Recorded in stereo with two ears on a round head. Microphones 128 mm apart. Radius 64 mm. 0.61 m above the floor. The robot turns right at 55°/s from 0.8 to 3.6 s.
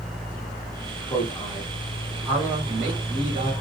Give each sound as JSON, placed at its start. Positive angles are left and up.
{"t": 1.1, "sound": "a man speaking", "azimuth_deg": 135, "distance_m": 1.2}